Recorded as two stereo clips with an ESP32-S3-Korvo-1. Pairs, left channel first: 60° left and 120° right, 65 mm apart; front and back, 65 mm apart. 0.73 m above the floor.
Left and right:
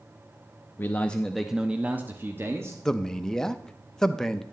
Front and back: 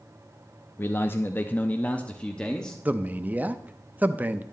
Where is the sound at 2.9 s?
135° left, 0.5 m.